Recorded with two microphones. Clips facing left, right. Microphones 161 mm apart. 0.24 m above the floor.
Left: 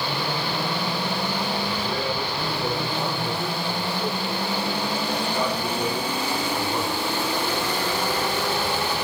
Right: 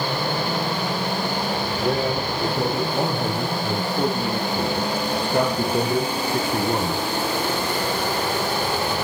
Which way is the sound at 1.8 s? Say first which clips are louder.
Right 5 dB; 70° right (ahead or behind).